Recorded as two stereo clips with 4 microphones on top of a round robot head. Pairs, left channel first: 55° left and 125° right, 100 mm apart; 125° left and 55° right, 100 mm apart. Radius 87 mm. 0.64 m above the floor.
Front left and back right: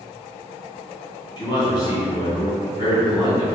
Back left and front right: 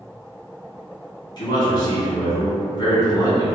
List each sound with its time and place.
1.4 s a man speaking: 90° left, 1.7 m